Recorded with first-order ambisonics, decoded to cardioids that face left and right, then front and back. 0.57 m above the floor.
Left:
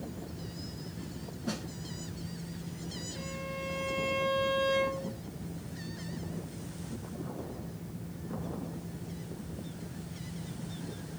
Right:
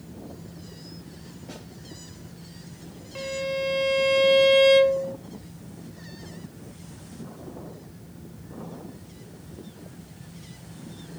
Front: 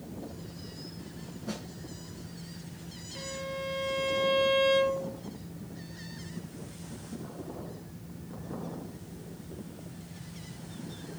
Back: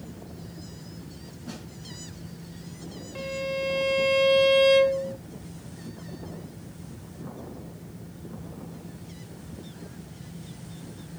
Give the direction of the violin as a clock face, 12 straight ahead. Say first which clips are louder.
Right 14 dB, back 7 dB; 4 o'clock.